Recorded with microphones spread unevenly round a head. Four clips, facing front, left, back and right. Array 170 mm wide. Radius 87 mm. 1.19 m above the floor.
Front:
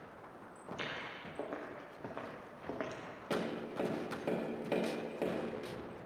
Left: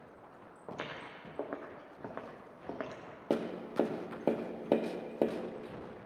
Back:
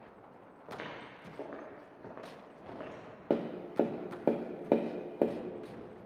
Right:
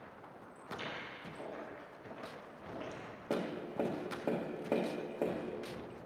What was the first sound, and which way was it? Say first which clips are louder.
Footsteps: left 1 dB, front 1 dB; 95° left.